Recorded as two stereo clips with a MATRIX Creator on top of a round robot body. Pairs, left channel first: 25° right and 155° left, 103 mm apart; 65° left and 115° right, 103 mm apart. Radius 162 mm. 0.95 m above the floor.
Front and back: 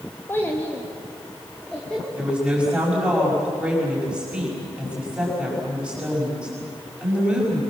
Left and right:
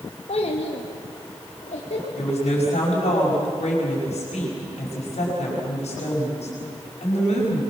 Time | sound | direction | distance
0.3 | a child speaking | 50° left | 1.5 m
2.2 | a woman speaking | 75° left | 5.5 m